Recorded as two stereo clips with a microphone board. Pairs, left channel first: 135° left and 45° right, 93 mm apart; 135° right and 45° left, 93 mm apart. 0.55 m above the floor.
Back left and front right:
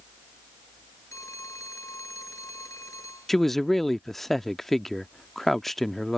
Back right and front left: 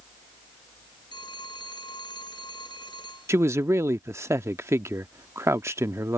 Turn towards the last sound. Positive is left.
turn(degrees=50)